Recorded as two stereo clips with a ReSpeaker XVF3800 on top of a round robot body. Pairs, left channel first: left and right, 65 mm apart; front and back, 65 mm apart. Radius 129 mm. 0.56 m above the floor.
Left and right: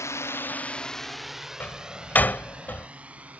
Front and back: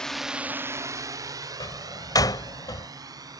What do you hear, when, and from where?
0.0 s a drone: 75° left; by 3.4 s 165° right
1.6 s a door slam: 25° left